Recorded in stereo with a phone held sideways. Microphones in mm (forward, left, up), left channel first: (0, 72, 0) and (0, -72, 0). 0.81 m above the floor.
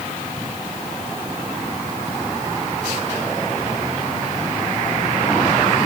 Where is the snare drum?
I don't hear a snare drum.